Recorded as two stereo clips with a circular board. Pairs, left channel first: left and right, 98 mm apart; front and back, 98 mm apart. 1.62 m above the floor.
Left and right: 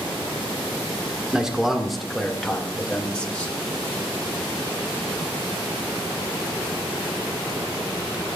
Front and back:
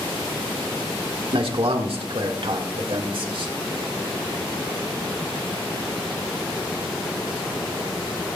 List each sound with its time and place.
1.3 s a man speaking: 175° right, 1.6 m; by 3.5 s 165° left, 2.5 m